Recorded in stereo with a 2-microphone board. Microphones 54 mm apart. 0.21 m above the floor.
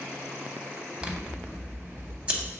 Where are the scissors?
20° right (ahead or behind), 0.7 m.